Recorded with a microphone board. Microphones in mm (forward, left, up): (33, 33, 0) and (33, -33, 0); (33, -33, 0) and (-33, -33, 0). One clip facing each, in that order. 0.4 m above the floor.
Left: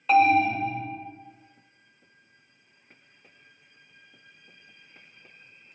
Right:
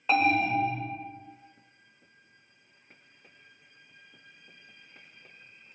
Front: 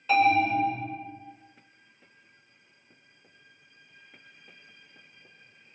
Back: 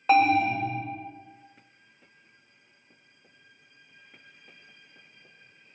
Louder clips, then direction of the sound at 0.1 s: Left 5 dB, back 1 dB; 165° right.